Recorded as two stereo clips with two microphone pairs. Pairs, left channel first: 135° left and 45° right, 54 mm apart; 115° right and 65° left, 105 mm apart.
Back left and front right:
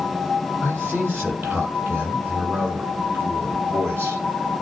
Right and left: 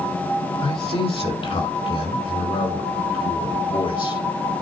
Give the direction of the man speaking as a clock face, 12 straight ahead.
3 o'clock.